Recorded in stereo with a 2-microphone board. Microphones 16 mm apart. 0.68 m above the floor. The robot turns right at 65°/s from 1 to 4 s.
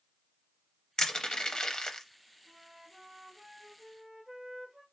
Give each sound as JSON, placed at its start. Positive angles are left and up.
{"t": 1.0, "sound": "crushing", "side_deg": 45, "distance_m": 0.6}
{"t": 2.5, "sound": "a flute", "azimuth_deg": -110, "distance_m": 2.0}